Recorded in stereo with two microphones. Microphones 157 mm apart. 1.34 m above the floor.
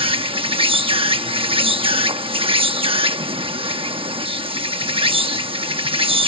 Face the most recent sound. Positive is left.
turn(degrees=-35)  # may be behind; listen again after turning